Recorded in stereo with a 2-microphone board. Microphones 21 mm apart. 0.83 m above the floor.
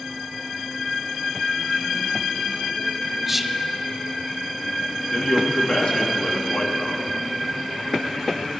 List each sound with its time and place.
3.3 s whispering: 5° right (ahead or behind), 0.6 m
5.1 s a man speaking: 60° left (ahead or behind), 1.8 m